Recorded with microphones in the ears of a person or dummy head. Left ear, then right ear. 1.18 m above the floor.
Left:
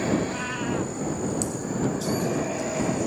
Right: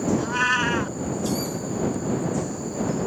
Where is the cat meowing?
50° right (ahead or behind).